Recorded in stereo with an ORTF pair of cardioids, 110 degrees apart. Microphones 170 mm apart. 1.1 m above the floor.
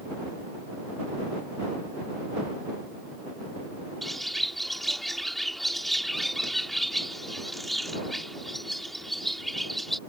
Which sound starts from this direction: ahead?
A bird, at 4.0 s.